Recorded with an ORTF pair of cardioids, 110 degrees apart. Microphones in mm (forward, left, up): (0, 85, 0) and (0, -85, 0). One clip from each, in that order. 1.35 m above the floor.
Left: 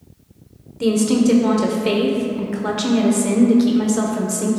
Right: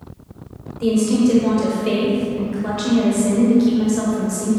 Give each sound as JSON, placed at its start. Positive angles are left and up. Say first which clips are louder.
{"t": 0.8, "sound": "a woman speaking", "louder": "even", "azimuth_deg": 30, "distance_m": 0.9}